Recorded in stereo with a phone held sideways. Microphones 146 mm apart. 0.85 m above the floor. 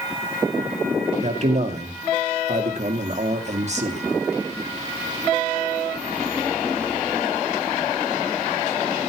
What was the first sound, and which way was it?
A man speaking, 50° right (ahead or behind).